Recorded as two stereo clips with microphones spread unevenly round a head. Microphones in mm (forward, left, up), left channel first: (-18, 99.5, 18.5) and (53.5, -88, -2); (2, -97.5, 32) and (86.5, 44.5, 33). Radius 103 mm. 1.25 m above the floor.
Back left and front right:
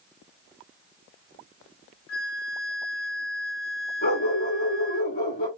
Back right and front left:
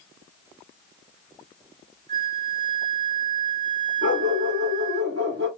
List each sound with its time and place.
2.1 s a flute: 115° left, 1.0 m
4.0 s a dog barking: 75° left, 1.5 m